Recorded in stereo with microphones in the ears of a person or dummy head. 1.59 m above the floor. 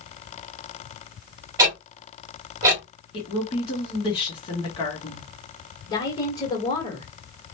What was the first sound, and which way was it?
Ticking, 25° right (ahead or behind).